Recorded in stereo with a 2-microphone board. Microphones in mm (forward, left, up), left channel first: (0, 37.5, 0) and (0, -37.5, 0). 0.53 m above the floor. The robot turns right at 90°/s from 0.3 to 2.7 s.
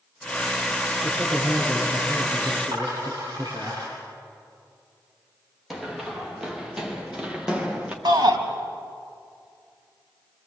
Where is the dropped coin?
65° right (ahead or behind), 9.5 m.